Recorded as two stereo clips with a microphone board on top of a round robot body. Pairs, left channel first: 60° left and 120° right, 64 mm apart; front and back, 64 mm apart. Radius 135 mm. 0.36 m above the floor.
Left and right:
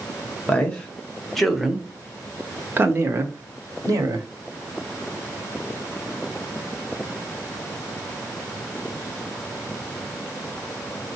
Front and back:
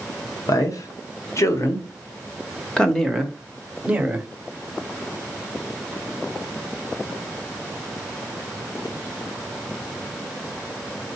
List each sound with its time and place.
0.5 s a man speaking: 10° right, 1.7 m; by 4.3 s 115° right, 1.6 m